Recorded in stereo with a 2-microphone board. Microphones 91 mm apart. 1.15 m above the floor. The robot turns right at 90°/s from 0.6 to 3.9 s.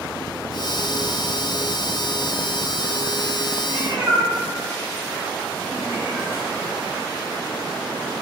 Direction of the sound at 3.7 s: 20° right (ahead or behind).